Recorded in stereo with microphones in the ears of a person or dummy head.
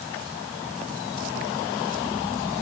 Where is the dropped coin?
No dropped coin in this recording.